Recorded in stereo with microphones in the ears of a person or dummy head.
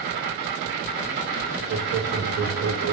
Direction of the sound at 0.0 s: 55° right (ahead or behind).